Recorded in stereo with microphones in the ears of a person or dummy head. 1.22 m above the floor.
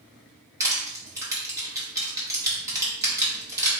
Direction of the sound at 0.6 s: 15° right (ahead or behind).